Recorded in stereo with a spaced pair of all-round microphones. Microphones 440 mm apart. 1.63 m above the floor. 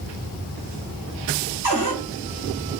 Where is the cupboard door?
25° left (ahead or behind), 1.6 m.